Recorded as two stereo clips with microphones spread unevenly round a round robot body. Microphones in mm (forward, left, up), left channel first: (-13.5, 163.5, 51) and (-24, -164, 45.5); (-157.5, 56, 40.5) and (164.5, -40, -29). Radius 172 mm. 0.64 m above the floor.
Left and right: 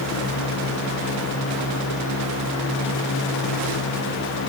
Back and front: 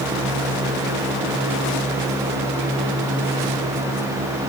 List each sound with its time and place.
Only background noise.